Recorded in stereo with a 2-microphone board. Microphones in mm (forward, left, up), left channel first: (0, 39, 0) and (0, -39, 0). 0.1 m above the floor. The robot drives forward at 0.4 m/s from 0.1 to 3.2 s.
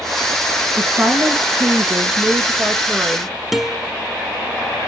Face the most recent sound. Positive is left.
turn(degrees=-5)  # may be behind; listen again after turning